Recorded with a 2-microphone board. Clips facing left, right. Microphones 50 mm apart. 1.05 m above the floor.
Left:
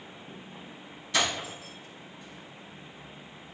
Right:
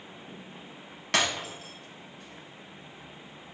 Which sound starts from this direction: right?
Breaking glass, at 1.1 s.